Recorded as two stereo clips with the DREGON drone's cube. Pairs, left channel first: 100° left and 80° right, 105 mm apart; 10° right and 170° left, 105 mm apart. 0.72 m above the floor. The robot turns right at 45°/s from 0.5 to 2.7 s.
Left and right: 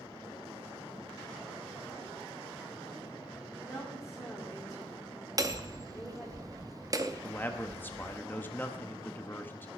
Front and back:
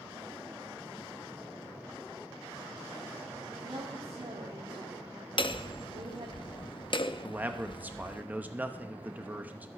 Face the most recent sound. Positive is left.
turn(degrees=125)